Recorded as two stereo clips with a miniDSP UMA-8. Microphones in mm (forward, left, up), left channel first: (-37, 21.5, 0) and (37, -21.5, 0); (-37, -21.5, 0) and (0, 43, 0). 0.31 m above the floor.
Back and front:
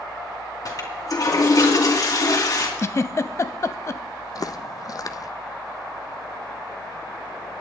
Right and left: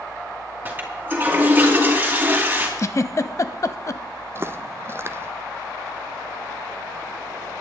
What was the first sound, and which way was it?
A toilet flushing, 120° left.